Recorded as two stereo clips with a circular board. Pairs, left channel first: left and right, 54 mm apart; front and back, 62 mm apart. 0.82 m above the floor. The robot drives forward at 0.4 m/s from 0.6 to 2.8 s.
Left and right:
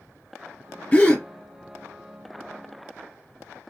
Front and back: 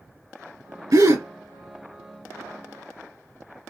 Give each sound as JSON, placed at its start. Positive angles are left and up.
{"t": 0.9, "sound": "a gasp", "azimuth_deg": 155, "distance_m": 2.5}